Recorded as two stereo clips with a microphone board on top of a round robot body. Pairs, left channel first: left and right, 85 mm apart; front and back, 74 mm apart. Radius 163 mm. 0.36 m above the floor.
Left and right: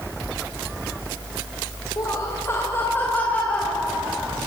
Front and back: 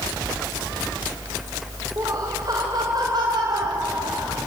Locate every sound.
2.0 s laughter: 135° left, 3 m; by 4.4 s 175° left, 4 m